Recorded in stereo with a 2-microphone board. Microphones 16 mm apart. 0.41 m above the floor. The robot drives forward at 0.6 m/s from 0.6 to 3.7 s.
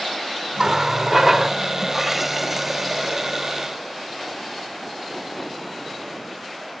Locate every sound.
0.6 s a running tap: 30° right (ahead or behind); by 3.4 s 10° right (ahead or behind)